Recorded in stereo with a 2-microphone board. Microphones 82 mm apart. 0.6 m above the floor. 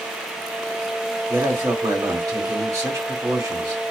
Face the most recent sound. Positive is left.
turn(degrees=-45)  # may be behind; listen again after turning